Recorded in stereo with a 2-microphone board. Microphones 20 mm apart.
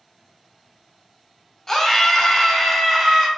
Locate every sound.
1.7 s a scream: 25° left (ahead or behind), 0.7 m; by 3.3 s centre (ahead or behind), 0.9 m